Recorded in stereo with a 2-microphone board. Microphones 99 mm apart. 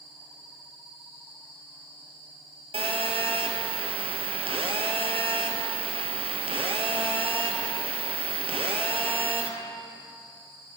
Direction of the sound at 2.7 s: 75° right (ahead or behind).